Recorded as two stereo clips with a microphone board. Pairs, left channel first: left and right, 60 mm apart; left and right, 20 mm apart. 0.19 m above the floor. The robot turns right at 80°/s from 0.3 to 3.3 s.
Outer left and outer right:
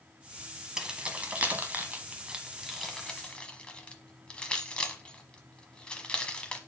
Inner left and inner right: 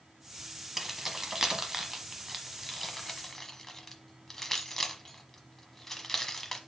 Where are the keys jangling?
10° right (ahead or behind), 1.0 m; by 6.6 s 20° left (ahead or behind), 1.0 m.